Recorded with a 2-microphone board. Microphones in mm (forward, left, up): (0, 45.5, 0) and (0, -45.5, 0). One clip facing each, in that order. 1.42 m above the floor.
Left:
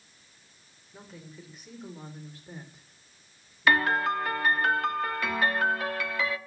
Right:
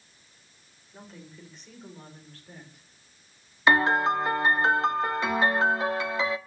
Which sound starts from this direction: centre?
A woman speaking, at 0.9 s.